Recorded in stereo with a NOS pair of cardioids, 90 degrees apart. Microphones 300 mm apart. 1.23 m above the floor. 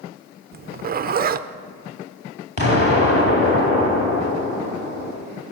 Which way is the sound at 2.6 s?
35° left.